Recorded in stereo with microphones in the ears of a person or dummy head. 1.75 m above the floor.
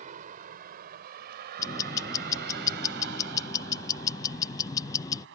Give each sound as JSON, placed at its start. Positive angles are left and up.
{"t": 0.0, "sound": "a vehicle", "side_deg": -45}
{"t": 1.6, "sound": "ticking", "side_deg": 15}